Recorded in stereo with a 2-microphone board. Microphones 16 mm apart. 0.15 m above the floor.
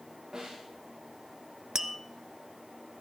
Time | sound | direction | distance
0.3 | a snare drum | 40° right (ahead or behind) | 7 m
1.8 | tapping | 20° right (ahead or behind) | 0.8 m